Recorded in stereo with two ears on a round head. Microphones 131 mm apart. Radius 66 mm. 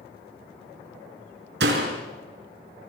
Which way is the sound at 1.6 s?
80° right.